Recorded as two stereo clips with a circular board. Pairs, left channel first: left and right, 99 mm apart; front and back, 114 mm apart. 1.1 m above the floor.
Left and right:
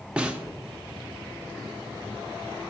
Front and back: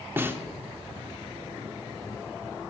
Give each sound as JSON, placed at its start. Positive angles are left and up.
{"t": 0.2, "sound": "a snare drum", "azimuth_deg": -150, "distance_m": 0.5}